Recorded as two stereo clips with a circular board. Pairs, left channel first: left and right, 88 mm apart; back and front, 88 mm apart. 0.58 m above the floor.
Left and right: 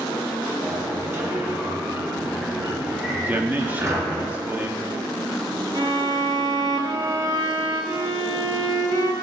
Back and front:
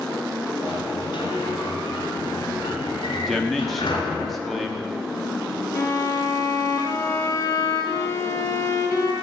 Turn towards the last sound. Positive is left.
turn(degrees=-130)